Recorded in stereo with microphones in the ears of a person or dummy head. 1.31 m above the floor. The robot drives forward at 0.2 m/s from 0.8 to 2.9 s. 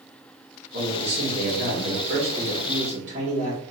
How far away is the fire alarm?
No fire alarm in this recording.